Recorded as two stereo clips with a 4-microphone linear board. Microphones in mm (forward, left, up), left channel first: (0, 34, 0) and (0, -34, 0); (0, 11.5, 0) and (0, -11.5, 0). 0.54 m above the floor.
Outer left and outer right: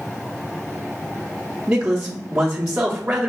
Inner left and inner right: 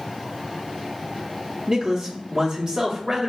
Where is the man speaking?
20° right (ahead or behind), 0.7 m.